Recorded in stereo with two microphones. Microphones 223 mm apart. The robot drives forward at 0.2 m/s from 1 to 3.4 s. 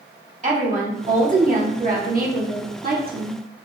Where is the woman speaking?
35° right (ahead or behind), 1.1 m; by 3.4 s 45° right (ahead or behind), 0.9 m.